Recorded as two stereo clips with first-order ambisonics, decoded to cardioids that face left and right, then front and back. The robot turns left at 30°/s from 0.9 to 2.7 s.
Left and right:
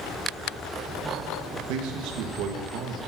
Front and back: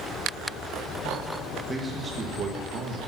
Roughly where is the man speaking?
Right.